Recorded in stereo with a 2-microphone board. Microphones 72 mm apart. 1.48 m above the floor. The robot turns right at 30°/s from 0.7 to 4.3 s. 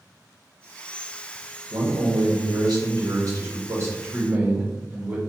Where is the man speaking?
105° right, 1.0 m; by 5.2 s 25° right, 1.0 m.